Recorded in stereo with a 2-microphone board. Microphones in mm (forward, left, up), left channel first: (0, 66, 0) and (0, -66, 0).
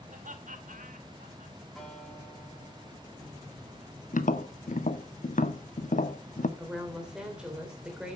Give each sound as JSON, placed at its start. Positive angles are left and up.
{"t": 0.1, "sound": "laughter", "side_deg": -80, "distance_m": 2.5}
{"t": 1.8, "sound": "a guitar", "side_deg": 0, "distance_m": 6.0}
{"t": 4.1, "sound": "tapping", "side_deg": 80, "distance_m": 1.2}
{"t": 6.6, "sound": "a woman speaking", "side_deg": -5, "distance_m": 3.5}